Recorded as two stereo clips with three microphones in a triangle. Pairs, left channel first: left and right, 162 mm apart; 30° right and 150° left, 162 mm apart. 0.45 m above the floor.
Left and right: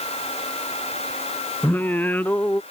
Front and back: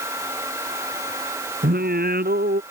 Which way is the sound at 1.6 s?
170° left.